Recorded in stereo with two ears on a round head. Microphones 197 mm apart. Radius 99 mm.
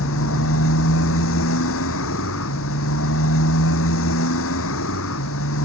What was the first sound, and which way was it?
A motorcycle, 60° left (ahead or behind).